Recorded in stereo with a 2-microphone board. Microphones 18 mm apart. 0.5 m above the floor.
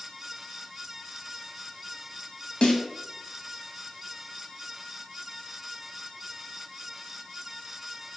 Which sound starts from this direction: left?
A snare drum, at 2.6 s.